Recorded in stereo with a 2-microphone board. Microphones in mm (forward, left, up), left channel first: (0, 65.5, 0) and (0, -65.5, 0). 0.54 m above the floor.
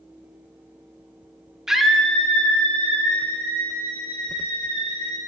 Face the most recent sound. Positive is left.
turn(degrees=15)  # may be behind; listen again after turning